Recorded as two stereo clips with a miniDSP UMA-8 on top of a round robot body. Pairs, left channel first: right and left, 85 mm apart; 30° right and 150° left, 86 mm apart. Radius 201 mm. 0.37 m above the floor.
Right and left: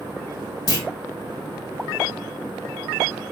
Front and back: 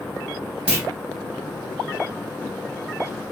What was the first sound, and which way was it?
A clunk, 135° right.